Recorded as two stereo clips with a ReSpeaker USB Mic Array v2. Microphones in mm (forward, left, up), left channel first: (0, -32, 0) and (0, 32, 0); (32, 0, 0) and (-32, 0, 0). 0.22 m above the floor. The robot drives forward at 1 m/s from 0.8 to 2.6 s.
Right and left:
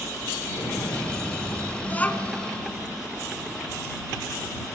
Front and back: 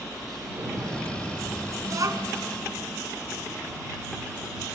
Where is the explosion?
130° right, 5 m; by 1.7 s 140° right, 5.5 m.